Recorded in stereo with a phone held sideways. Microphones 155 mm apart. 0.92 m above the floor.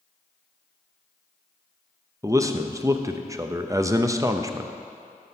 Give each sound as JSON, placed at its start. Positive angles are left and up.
{"t": 2.2, "sound": "a man speaking", "side_deg": -20, "distance_m": 0.6}